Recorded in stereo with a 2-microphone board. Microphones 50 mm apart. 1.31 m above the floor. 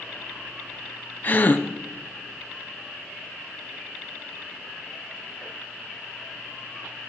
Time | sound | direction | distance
1.2 | a gasp | 40° left (ahead or behind) | 0.7 m